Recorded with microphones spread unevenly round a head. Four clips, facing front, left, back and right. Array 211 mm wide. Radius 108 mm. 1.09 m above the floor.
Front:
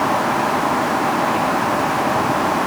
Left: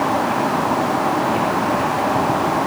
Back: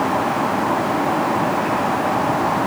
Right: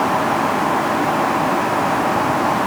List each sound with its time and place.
Only background noise.